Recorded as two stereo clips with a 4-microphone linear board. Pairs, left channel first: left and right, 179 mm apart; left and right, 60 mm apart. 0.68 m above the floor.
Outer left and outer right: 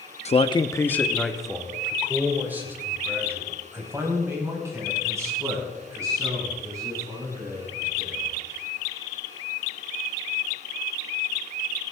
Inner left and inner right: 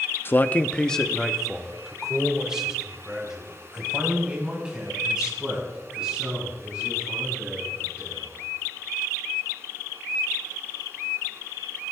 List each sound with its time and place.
0.2 s a man speaking: 40° left (ahead or behind), 0.6 m; by 8.4 s 20° right (ahead or behind), 7.5 m